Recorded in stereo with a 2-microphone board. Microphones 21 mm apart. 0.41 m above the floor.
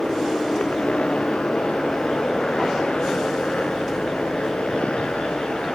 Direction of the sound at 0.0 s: 70° left (ahead or behind).